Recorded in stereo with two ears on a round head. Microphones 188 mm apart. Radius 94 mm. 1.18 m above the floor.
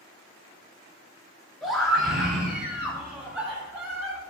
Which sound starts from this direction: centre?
A scream, at 1.6 s.